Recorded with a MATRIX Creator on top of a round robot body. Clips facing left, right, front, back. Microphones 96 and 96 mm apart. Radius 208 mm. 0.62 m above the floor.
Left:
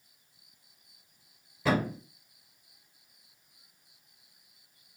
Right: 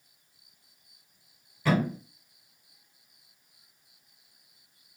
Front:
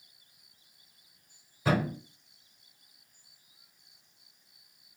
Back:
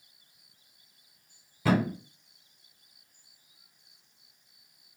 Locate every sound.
1.6 s a thud: 170° left, 1.7 m